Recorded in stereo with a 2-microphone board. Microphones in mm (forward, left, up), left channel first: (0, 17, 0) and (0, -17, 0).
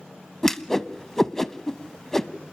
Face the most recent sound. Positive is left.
turn(degrees=15)  # may be behind; listen again after turning